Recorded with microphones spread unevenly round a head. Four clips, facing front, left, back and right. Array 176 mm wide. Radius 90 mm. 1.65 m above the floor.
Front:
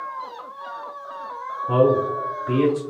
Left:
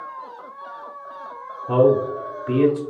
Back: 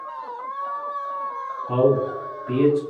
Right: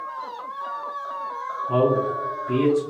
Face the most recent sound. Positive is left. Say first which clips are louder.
# left 4 dB, front 1 dB
turn(degrees=45)